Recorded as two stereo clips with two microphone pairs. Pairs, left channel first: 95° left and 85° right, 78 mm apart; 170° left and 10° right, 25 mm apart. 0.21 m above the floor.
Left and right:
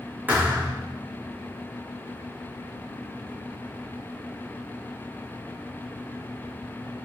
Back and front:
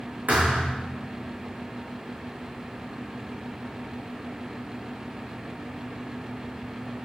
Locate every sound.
0.3 s a thud: 15° right, 3 m